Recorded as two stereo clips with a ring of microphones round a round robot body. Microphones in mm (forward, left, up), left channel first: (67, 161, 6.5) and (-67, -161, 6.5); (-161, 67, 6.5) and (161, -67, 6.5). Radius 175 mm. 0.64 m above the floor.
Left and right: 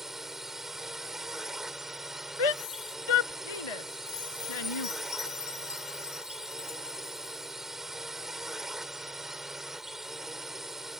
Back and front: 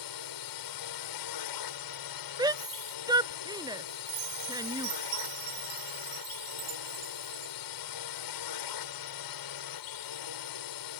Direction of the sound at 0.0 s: 160° left.